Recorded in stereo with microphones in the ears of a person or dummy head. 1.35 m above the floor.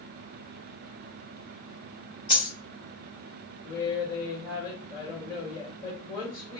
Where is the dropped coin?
30° left (ahead or behind), 0.8 m.